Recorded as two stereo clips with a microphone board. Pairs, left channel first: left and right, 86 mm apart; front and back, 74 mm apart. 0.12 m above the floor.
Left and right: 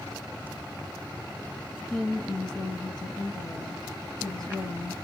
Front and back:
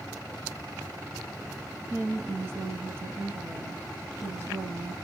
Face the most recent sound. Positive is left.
turn(degrees=155)